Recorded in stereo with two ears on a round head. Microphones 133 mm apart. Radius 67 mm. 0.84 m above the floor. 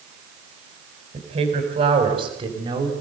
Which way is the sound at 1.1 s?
45° right (ahead or behind).